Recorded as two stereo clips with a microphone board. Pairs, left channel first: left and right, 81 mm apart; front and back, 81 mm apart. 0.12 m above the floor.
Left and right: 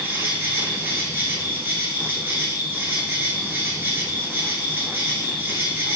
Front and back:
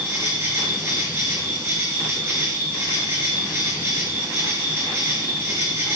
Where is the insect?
140° right, 2.5 m.